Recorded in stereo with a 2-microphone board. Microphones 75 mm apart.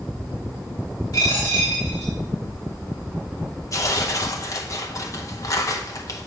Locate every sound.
1.1 s a dropped coin: 60° left (ahead or behind), 3 m
3.7 s tearing paper: 45° left (ahead or behind), 0.8 m